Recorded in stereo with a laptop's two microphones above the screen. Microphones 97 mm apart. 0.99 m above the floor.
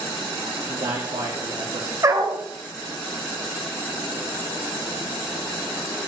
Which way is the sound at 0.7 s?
75° right (ahead or behind).